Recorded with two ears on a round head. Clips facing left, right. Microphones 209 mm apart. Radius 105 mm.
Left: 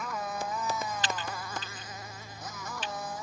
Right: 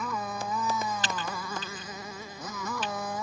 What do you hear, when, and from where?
0.0 s a motorcycle: 80° right; by 3.2 s 60° right (ahead or behind)
1.0 s typing on a keyboard: 35° right (ahead or behind)